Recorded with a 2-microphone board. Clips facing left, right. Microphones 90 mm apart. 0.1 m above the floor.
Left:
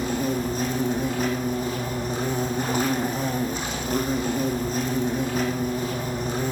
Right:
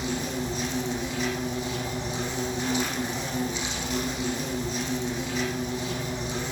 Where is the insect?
50° left (ahead or behind), 3 m.